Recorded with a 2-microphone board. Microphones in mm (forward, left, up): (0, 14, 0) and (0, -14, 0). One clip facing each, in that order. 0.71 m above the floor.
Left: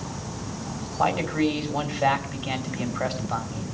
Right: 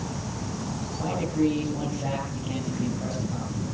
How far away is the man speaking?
About 3 m.